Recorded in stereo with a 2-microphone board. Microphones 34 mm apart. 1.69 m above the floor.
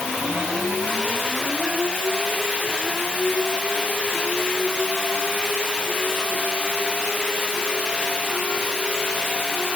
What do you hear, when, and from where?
Only background noise.